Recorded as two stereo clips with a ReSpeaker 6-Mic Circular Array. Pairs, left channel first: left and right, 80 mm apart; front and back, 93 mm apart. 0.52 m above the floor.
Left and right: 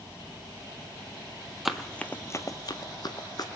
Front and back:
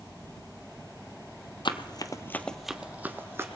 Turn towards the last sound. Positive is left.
turn(degrees=120)